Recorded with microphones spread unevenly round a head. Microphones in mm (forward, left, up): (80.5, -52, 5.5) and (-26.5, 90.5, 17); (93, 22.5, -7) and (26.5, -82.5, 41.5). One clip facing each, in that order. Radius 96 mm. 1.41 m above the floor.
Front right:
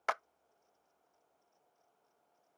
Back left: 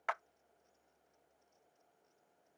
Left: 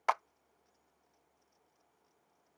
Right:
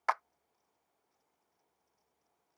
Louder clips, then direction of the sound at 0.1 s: Front right 4 dB, left 1 dB; 20° right.